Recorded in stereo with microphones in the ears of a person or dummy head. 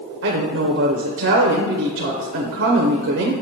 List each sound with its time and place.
0.2 s a woman speaking: 65° right (ahead or behind), 0.6 m